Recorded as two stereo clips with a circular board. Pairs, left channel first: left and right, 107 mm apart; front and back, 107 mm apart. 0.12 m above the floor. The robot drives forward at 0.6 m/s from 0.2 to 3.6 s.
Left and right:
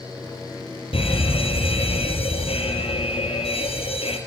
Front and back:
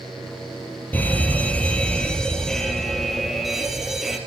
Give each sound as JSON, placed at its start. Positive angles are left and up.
{"t": 0.9, "sound": "a fire alarm", "azimuth_deg": 75, "distance_m": 5.0}